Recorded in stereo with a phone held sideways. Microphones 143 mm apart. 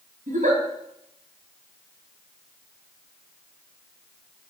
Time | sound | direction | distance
0.3 | a giggle | 75° right (ahead or behind) | 4 m